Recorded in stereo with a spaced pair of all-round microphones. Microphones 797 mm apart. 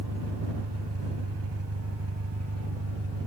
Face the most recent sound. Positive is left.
turn(degrees=-15)  # may be behind; listen again after turning